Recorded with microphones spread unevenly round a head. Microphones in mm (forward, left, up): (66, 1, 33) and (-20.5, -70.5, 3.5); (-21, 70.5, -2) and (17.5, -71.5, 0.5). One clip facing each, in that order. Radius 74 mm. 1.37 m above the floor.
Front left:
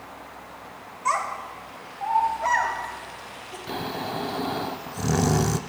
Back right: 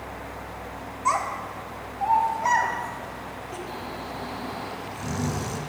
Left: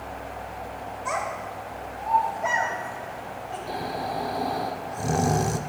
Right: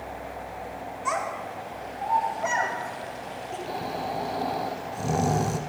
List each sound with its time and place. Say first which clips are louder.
1.1 s a child speaking: back right 1 dB, even; 80° right, 2 m; by 3.6 s 90° right, 3.5 m
3.7 s snoring: front left 4 dB, left 1 dB; 15° left, 0.5 m